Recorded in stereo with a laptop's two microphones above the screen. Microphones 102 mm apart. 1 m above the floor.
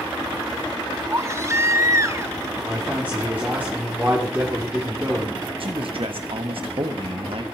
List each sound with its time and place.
1.1 s a baby crying: 30° right (ahead or behind), 0.6 m
2.7 s a man speaking: 20° right (ahead or behind), 3 m
5.6 s a man speaking: 65° right (ahead or behind), 1.4 m